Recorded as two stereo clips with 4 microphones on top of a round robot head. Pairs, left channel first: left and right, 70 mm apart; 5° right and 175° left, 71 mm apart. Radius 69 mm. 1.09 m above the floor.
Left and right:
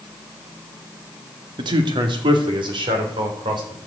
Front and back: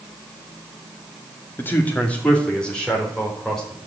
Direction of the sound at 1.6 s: 75° right.